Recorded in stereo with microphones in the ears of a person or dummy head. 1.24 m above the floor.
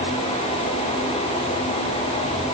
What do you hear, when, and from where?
Only background noise.